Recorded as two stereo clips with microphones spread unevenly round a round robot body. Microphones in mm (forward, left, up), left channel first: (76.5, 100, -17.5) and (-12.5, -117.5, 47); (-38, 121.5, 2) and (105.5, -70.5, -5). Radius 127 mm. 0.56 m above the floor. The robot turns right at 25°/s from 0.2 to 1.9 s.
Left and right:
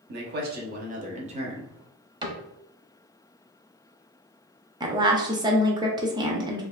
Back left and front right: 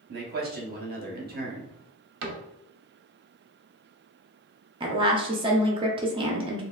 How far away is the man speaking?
About 0.9 m.